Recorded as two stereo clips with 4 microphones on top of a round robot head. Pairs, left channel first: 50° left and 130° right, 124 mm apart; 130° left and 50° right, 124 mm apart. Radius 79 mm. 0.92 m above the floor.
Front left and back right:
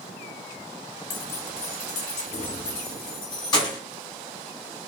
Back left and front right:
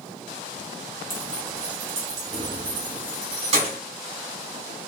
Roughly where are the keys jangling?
Ahead left.